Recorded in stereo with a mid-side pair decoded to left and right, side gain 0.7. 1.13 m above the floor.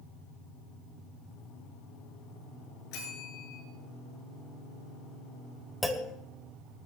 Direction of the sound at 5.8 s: 5° left.